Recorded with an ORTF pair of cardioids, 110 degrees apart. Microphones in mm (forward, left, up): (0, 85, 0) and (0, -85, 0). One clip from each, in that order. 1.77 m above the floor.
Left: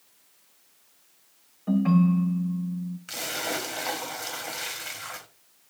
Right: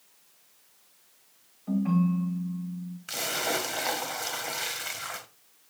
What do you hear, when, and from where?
1.7 s a ringtone: 50° left, 2 m
3.1 s a splash: 10° right, 1.3 m